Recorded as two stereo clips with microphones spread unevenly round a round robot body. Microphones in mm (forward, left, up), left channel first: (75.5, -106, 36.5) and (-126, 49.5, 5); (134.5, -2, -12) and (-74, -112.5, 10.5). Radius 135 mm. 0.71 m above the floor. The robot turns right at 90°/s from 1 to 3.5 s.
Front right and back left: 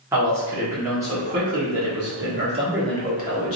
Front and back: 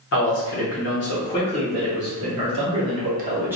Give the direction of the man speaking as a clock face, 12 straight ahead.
10 o'clock.